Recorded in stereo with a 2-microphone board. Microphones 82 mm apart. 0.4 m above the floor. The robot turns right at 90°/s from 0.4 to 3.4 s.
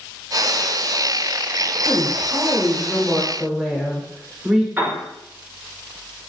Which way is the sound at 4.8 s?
20° right (ahead or behind).